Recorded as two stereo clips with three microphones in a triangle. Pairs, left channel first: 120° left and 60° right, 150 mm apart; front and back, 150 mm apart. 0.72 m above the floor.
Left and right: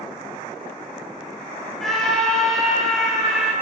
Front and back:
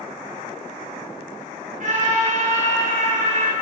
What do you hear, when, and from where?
1.8 s a scream: 150° right, 2.5 m